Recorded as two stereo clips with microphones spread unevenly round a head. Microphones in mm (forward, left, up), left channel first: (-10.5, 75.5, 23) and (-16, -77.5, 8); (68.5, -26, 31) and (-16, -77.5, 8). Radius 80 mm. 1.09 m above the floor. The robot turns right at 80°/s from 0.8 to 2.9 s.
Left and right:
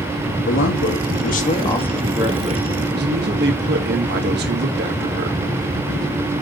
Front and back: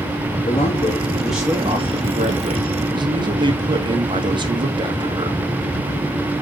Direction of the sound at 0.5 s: 85° left.